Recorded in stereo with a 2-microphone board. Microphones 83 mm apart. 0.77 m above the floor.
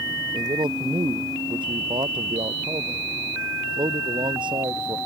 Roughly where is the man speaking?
Right.